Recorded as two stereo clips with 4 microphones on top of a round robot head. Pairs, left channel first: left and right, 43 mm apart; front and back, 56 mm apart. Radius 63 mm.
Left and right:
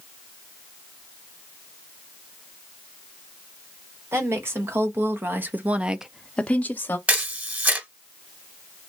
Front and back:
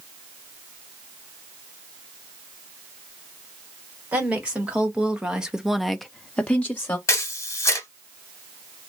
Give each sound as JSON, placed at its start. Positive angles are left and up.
{"t": 4.1, "sound": "a woman speaking", "azimuth_deg": -110, "distance_m": 1.7}
{"t": 7.1, "sound": "a camera shutter", "azimuth_deg": -40, "distance_m": 1.3}